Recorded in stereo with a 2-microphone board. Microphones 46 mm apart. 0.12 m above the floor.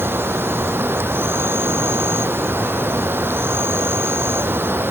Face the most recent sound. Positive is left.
turn(degrees=-55)  # may be behind; listen again after turning